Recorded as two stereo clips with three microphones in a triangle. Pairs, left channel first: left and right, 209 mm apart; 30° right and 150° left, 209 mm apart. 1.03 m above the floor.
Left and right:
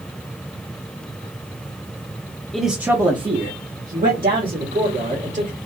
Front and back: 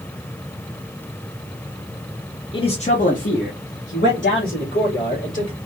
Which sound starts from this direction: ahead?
A man speaking, at 2.5 s.